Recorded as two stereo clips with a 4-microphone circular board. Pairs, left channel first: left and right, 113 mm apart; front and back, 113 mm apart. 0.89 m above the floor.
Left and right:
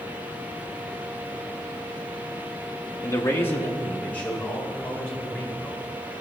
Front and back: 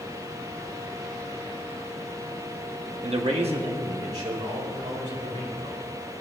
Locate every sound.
3.0 s a man speaking: 150° left, 0.7 m; by 6.2 s 170° left, 4 m